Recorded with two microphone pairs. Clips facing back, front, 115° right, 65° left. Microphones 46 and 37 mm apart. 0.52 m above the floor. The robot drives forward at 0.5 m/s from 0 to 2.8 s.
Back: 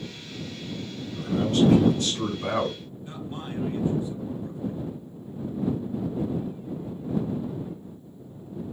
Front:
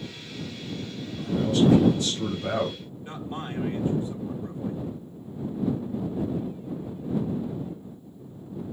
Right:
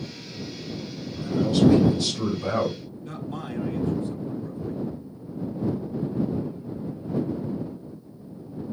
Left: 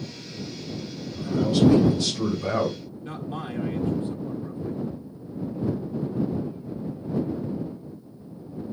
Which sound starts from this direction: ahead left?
A man speaking, at 3.0 s.